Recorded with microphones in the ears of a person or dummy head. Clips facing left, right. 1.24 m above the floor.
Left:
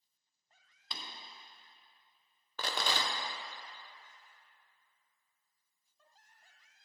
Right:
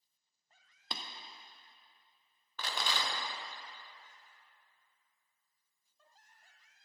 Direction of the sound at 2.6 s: 35° left (ahead or behind).